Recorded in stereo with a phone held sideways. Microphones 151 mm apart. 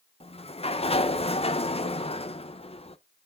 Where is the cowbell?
No cowbell in this recording.